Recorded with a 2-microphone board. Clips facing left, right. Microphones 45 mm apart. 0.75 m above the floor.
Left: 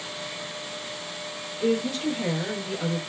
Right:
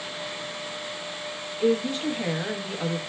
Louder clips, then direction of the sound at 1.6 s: Right 1 dB; 20° right (ahead or behind).